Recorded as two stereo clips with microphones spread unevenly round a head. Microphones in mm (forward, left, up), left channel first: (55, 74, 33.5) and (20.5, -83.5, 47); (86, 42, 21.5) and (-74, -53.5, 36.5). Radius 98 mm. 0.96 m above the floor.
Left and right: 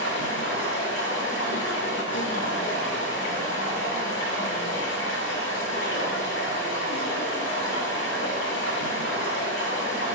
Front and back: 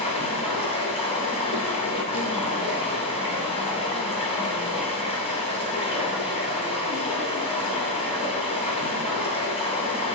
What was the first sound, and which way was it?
Running water, 95° left.